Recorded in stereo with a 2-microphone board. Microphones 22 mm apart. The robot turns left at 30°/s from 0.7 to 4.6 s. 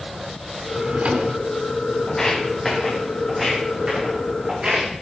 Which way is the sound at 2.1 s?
10° left (ahead or behind).